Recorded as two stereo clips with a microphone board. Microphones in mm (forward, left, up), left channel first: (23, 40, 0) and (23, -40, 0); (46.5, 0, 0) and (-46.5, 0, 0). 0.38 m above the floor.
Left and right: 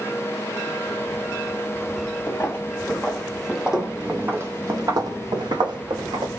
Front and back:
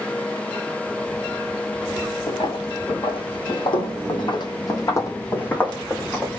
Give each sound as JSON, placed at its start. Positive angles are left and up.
{"t": 2.3, "sound": "footsteps", "azimuth_deg": 25, "distance_m": 1.5}